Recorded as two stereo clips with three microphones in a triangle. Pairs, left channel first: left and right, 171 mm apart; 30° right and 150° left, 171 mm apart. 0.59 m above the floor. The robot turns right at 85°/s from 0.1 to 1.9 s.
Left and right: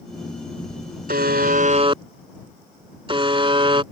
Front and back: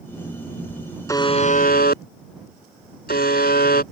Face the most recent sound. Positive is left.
turn(degrees=-35)